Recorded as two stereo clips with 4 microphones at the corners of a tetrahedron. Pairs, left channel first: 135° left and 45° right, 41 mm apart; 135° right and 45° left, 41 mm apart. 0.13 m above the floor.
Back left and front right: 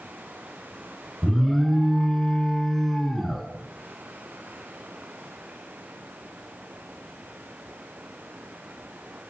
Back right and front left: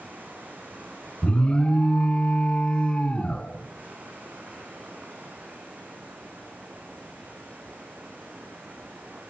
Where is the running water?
Straight ahead, 6 m.